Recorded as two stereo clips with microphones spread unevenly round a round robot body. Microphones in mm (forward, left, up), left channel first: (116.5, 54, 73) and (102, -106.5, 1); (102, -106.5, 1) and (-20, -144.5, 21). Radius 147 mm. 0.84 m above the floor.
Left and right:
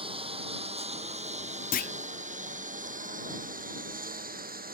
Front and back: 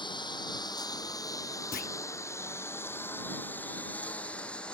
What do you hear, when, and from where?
0.0 s a lawn mower: 35° right; by 4.7 s 65° right
1.7 s a clunk: 65° left